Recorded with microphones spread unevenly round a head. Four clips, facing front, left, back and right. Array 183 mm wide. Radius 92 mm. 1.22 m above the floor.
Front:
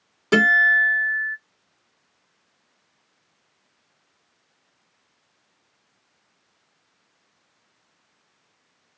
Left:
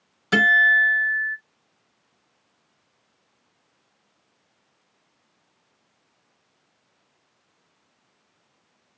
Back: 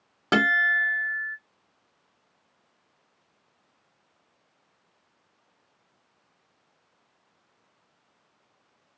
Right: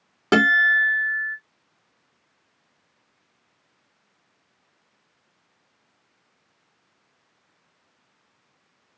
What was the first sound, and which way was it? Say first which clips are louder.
A guitar: even, front 5 dB; 105° right.